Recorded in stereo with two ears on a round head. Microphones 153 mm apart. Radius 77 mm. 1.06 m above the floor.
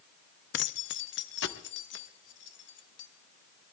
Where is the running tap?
I don't hear a running tap.